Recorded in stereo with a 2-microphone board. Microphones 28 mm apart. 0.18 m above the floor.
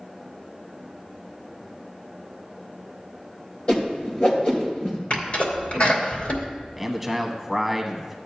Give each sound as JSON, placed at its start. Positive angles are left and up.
{"t": 3.7, "sound": "a whoosh", "side_deg": 40, "distance_m": 2.5}
{"t": 5.1, "sound": "a sneeze", "side_deg": 55, "distance_m": 3.0}
{"t": 6.8, "sound": "a man speaking", "side_deg": -5, "distance_m": 1.0}